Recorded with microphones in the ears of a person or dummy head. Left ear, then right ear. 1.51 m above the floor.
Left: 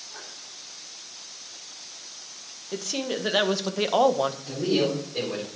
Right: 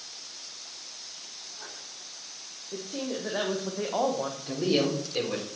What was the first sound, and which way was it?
A woman speaking, 70° left (ahead or behind).